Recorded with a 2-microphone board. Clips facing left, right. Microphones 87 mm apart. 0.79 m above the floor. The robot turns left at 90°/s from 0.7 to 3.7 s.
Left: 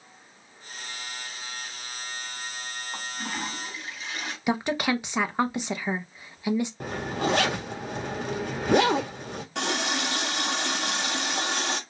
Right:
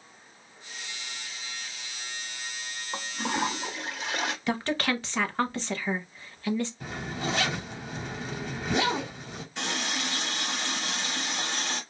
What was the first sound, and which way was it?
A toilet flushing, 30° right.